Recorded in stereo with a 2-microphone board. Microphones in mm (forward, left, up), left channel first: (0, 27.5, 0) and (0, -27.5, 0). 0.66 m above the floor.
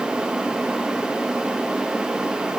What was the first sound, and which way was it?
Only background noise.